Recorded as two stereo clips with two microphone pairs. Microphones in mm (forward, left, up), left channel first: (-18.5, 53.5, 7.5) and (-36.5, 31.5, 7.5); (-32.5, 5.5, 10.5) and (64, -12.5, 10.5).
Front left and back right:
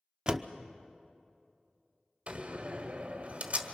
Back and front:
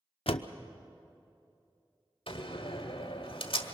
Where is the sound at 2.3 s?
175° right, 1.6 m.